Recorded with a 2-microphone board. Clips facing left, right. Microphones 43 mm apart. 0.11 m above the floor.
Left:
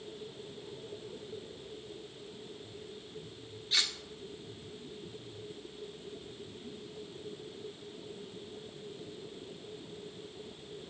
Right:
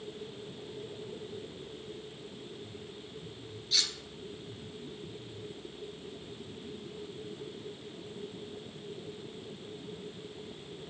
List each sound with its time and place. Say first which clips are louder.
3.7 s cutlery clinking: left 1 dB; 30° left (ahead or behind), 0.8 m